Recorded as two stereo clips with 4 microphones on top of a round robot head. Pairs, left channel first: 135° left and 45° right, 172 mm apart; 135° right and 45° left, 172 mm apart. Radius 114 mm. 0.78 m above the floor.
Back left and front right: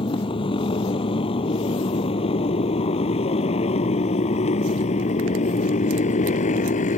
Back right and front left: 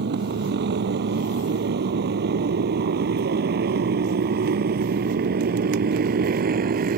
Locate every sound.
0.0 s a motorcycle: 70° left; by 7.0 s 85° left